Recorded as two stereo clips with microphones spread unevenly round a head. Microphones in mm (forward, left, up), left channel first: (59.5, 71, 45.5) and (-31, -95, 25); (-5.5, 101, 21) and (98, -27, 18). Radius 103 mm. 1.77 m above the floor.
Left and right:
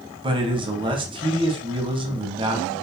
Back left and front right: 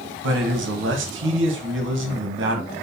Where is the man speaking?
55° right, 2 m.